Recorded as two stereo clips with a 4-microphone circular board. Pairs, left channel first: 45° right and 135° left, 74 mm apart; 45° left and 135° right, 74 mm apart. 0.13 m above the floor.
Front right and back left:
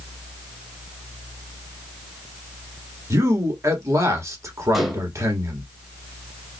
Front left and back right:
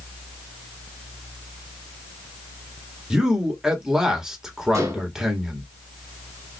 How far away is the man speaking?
About 1.5 m.